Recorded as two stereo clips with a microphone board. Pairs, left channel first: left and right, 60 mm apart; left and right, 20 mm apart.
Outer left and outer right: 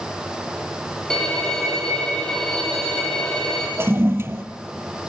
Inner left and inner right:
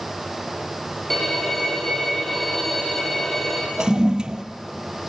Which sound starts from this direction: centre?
A violin, at 1.1 s.